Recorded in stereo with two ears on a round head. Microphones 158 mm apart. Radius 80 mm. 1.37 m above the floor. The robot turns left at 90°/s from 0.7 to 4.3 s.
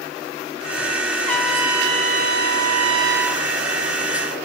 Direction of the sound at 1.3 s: 10° left.